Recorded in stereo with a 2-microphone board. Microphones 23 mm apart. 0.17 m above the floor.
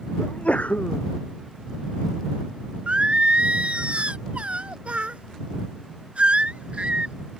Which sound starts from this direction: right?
Singing, at 2.9 s.